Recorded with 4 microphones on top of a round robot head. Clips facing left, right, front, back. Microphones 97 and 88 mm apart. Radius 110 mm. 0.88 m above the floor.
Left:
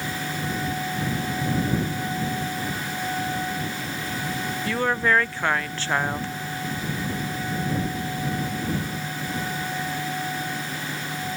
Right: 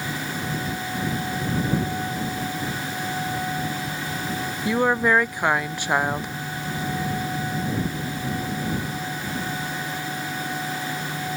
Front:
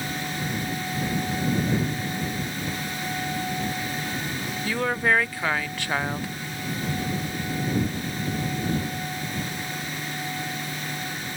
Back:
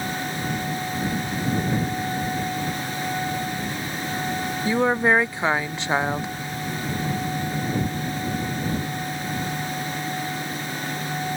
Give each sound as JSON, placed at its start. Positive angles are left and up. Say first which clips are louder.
{"t": 4.7, "sound": "a woman speaking", "louder": "right 3 dB, back 4 dB", "azimuth_deg": -145}